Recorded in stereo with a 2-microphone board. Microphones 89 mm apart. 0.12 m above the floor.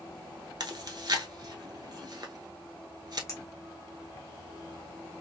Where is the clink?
35° left (ahead or behind), 1.2 m.